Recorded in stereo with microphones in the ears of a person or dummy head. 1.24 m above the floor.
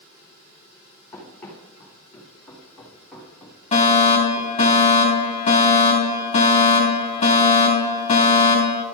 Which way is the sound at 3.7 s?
25° left (ahead or behind).